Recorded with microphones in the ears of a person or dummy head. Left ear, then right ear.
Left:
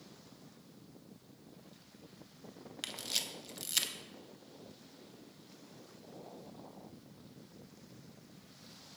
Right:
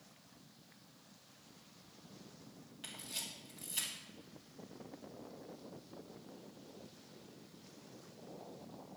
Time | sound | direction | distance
2.8 | a camera shutter | 50° left (ahead or behind) | 0.9 m